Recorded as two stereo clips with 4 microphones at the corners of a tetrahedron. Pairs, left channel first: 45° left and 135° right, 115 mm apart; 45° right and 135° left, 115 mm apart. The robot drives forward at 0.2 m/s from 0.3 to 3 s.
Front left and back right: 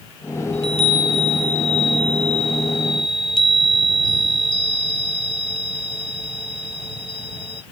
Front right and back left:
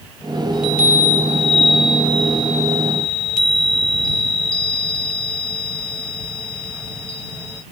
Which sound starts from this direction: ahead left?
A chime, at 0.5 s.